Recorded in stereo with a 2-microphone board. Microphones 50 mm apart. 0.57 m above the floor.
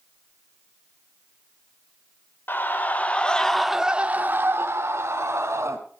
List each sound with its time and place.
2.5 s a scream: 40° left (ahead or behind), 1.6 m; by 5.8 s 75° right (ahead or behind), 2 m